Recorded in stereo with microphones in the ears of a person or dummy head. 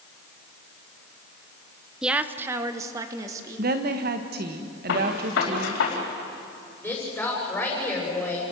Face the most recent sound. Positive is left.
turn(degrees=10)  # may be behind; listen again after turning